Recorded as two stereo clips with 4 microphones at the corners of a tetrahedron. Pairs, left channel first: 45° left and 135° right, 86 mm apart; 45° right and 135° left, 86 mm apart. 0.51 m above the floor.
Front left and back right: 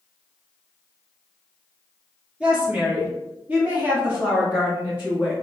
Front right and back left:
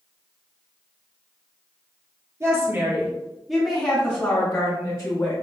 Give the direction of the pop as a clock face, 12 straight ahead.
No pop in this recording.